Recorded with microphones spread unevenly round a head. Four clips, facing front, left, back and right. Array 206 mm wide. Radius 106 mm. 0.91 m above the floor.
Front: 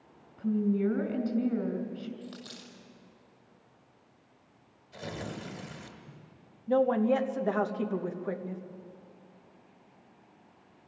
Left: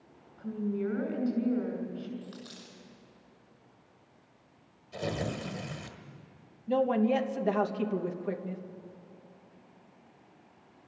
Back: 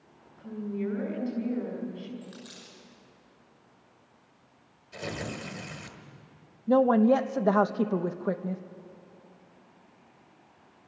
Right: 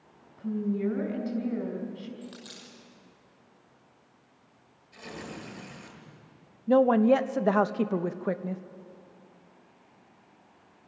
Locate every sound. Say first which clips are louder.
0.4 s a woman speaking: right 3 dB, front 6 dB; 30° right, 5 m
2.2 s a dropped coin: right 1 dB, front 1 dB; 40° right, 6 m
4.9 s tearing paper: left 7 dB, back 3 dB; 105° left, 1.8 m
6.7 s a woman speaking: right 6 dB, back 4 dB; 145° right, 1.1 m